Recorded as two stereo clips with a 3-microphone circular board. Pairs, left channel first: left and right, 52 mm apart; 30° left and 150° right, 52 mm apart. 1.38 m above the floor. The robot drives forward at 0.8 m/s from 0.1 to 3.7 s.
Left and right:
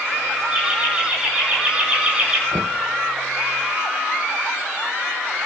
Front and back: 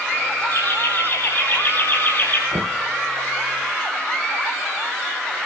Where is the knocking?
130° right, 0.6 m; by 2.8 s 145° right, 0.8 m.